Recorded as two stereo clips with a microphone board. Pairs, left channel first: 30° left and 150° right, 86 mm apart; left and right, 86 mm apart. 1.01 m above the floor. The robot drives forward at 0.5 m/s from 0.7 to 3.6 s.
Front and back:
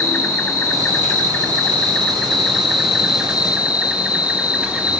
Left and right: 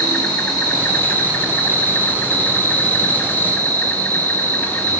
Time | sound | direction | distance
0.0 | an insect | 40° left | 1.7 m